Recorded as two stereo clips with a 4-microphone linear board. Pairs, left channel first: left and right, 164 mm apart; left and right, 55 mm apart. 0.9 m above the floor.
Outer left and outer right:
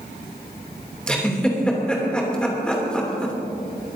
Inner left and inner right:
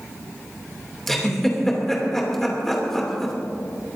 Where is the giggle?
5° left (ahead or behind), 3 m.